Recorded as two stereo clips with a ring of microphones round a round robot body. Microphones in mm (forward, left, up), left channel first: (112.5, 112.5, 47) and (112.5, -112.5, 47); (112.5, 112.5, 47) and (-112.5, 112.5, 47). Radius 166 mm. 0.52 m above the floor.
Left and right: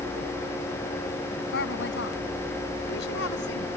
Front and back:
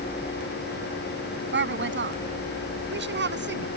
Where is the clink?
No clink in this recording.